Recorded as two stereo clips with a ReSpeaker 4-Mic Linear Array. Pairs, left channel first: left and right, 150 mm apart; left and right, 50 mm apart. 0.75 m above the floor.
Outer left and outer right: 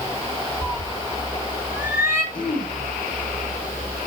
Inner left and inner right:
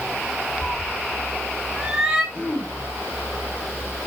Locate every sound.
0.6 s a cat meowing: 15° left (ahead or behind), 0.8 m; by 2.2 s 15° right (ahead or behind), 2.5 m
2.3 s throat clearing: 35° left (ahead or behind), 3 m